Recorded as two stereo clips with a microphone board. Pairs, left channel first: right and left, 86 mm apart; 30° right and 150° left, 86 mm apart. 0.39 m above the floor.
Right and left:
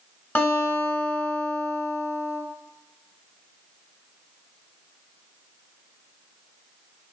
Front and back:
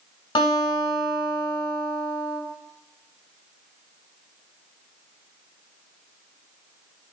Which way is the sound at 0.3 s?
25° right.